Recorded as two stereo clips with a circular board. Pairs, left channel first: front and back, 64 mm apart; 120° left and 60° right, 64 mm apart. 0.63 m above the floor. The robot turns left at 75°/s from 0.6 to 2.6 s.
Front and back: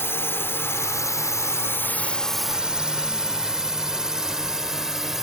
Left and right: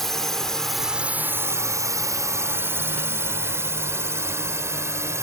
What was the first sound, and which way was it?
A drone, 35° left.